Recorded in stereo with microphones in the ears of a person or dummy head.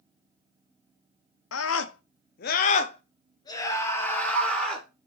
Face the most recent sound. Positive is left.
turn(degrees=5)  # may be behind; listen again after turning